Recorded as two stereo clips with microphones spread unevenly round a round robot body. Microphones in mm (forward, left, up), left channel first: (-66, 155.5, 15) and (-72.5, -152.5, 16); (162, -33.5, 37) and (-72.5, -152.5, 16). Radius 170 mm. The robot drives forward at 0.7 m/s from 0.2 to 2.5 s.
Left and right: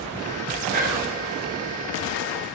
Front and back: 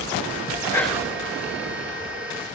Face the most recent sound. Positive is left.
turn(degrees=-170)